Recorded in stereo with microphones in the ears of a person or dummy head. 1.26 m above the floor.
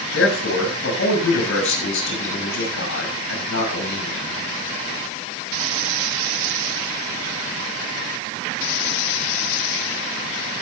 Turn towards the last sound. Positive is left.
turn(degrees=75)  # may be behind; listen again after turning